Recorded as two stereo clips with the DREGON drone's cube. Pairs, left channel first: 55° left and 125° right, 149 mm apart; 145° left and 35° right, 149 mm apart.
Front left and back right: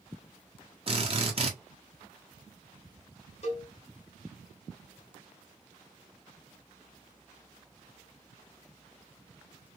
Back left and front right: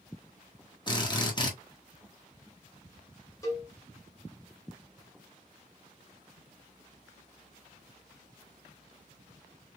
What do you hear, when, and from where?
0.9 s a drill: 160° right, 1.2 m
3.4 s a cowbell: 80° left, 1.5 m